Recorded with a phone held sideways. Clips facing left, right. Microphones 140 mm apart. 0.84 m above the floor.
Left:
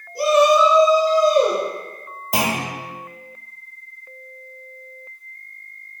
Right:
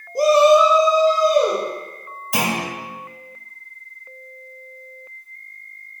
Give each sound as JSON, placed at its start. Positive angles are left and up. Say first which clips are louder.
{"t": 0.1, "sound": "a shout", "louder": "right 2 dB", "side_deg": -50, "distance_m": 0.5}
{"t": 2.3, "sound": "a clunk", "louder": "even", "side_deg": 40, "distance_m": 1.5}